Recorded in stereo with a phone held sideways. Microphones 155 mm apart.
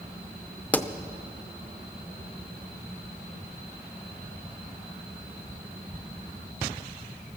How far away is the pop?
About 0.5 m.